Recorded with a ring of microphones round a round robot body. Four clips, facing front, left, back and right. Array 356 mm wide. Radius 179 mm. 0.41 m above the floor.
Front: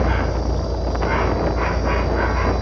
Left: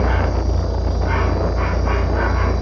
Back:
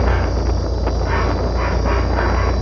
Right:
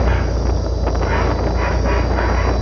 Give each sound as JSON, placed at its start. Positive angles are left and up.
{"t": 0.0, "sound": "an insect", "azimuth_deg": -130, "distance_m": 1.7}